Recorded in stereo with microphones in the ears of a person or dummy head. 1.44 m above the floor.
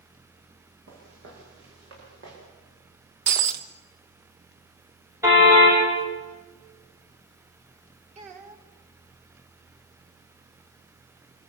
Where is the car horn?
15° right (ahead or behind), 4.5 m.